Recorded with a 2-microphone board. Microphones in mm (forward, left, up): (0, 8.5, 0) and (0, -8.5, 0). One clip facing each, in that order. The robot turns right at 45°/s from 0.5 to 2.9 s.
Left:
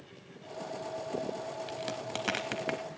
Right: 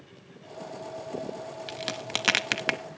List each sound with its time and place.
1.7 s a crack: 30° right (ahead or behind), 0.7 m; by 2.8 s 75° right (ahead or behind), 0.7 m